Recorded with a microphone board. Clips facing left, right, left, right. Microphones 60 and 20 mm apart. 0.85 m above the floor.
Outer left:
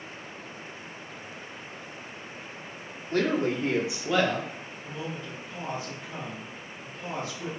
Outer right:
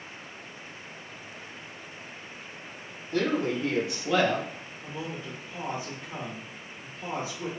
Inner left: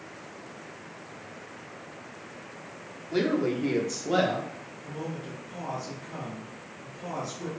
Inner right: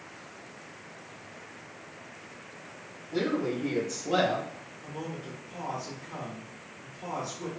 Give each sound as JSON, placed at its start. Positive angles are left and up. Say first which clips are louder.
{"t": 3.1, "sound": "a woman speaking", "louder": "outer left 1 dB, inner left 3 dB", "side_deg": 55, "distance_m": 0.8}
{"t": 4.8, "sound": "a man speaking", "louder": "even, inner left 2 dB", "side_deg": -20, "distance_m": 0.8}